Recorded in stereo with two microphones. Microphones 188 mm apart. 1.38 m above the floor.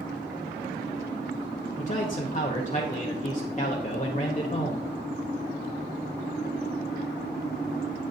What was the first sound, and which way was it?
A man speaking, 40° left (ahead or behind).